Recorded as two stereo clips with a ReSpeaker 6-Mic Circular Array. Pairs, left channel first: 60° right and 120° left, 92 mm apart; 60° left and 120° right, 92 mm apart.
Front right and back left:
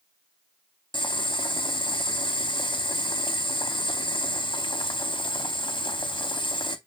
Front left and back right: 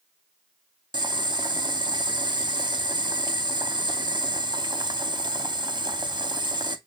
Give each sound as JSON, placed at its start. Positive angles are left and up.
{"t": 0.9, "sound": "boiling", "azimuth_deg": -85, "distance_m": 0.7}